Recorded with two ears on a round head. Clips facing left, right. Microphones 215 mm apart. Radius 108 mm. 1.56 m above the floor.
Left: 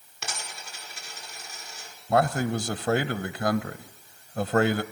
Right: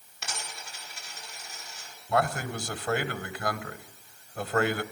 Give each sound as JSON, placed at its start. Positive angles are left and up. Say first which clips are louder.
{"t": 0.2, "sound": "a dropped coin", "louder": "left 2 dB", "side_deg": 70, "distance_m": 8.5}
{"t": 2.1, "sound": "a man speaking", "louder": "left 5 dB", "side_deg": 35, "distance_m": 0.9}